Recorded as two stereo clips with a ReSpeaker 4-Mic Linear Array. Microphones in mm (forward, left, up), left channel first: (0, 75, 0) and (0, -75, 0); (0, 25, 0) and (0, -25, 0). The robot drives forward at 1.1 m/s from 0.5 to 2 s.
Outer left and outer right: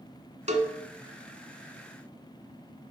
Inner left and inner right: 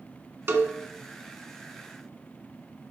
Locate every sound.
0.5 s a cowbell: 50° right (ahead or behind), 1.0 m